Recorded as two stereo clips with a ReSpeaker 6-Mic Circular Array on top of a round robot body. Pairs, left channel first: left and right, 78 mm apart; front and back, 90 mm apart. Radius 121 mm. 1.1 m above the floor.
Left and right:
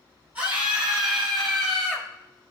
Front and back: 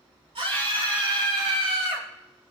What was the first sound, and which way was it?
A scream, 160° right.